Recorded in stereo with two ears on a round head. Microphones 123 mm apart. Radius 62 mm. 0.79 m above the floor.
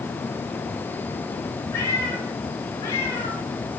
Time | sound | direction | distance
1.7 | a cat meowing | 25° left (ahead or behind) | 3.5 m